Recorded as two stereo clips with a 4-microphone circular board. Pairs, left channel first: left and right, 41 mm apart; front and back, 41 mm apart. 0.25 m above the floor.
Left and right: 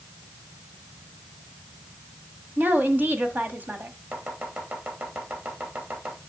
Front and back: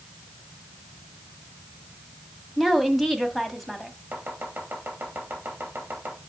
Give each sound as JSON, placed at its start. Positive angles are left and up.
{"t": 2.6, "sound": "a woman speaking", "azimuth_deg": -85, "distance_m": 1.2}
{"t": 4.1, "sound": "chopping", "azimuth_deg": -135, "distance_m": 2.5}